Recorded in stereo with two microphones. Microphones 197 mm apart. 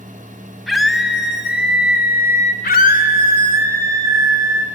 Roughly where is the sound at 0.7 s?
Centre.